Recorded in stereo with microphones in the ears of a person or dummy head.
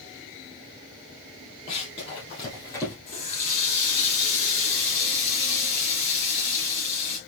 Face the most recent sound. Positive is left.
turn(degrees=40)  # may be behind; listen again after turning